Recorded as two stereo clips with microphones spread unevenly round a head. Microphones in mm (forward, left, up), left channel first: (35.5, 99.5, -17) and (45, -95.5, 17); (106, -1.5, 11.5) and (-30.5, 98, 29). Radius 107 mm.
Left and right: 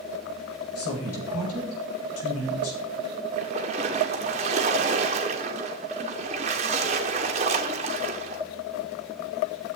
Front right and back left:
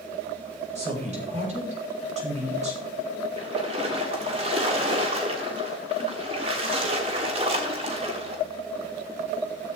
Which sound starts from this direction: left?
A woman speaking, at 0.8 s.